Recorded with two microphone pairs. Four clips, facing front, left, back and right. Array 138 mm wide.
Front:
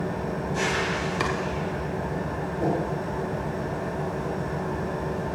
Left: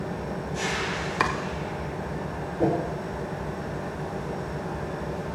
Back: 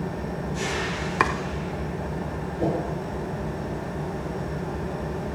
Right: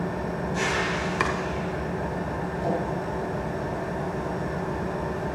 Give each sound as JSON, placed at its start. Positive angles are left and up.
{"t": 0.0, "sound": "an engine running", "azimuth_deg": -40, "distance_m": 3.5}
{"t": 1.2, "sound": "chopping", "azimuth_deg": 165, "distance_m": 1.0}
{"t": 2.6, "sound": "a whoosh", "azimuth_deg": 115, "distance_m": 3.5}